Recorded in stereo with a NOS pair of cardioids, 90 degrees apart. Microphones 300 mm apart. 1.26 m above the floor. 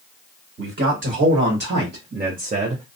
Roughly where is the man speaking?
Ahead right.